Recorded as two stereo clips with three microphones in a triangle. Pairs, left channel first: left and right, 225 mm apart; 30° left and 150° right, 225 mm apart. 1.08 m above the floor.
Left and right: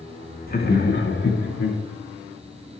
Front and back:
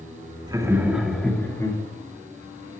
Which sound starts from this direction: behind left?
Laughter, at 0.5 s.